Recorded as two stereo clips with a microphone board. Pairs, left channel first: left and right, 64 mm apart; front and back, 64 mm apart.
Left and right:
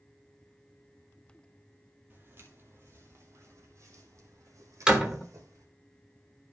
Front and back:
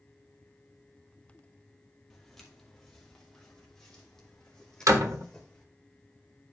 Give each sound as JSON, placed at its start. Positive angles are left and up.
{"t": 2.1, "sound": "footsteps", "azimuth_deg": -80, "distance_m": 1.9}
{"t": 4.9, "sound": "a door slam", "azimuth_deg": -165, "distance_m": 1.3}